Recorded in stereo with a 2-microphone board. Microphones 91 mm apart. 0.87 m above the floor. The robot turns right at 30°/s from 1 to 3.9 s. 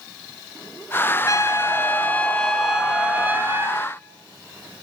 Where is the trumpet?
140° left, 3.5 m; by 3.9 s 145° right, 3.5 m.